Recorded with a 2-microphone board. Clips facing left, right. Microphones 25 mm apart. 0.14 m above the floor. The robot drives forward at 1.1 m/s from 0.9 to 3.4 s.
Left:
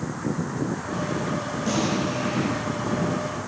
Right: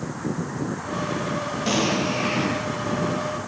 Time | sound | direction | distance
1.7 | an explosion | 50° right (ahead or behind) | 2 m